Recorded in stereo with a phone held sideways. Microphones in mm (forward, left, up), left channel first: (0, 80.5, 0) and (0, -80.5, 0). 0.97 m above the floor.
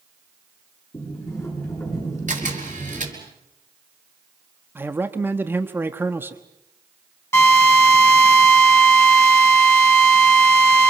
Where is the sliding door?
15° left (ahead or behind), 9.5 m.